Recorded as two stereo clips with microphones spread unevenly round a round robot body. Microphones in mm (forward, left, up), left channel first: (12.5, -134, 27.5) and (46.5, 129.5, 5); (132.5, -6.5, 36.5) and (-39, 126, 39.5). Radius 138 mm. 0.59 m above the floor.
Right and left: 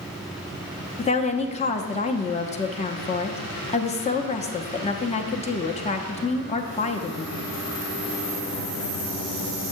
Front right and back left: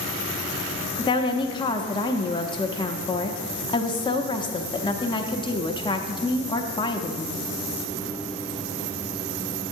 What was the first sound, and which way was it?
A woman speaking, 60° right.